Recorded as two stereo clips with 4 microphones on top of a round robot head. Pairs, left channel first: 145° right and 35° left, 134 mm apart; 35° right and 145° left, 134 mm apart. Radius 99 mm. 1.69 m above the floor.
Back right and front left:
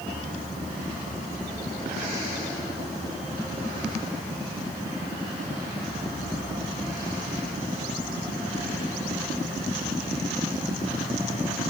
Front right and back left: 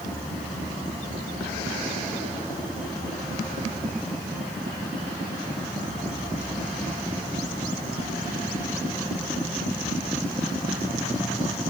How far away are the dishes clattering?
I don't hear dishes clattering.